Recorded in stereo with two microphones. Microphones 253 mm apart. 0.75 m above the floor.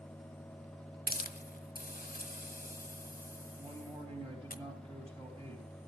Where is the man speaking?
25° right (ahead or behind), 3.5 m.